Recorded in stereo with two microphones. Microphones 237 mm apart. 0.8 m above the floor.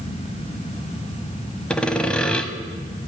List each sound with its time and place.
1.7 s sawing: 5° left (ahead or behind), 0.7 m